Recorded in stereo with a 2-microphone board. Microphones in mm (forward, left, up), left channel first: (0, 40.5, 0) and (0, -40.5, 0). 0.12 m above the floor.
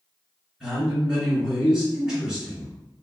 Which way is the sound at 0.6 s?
5° right (ahead or behind).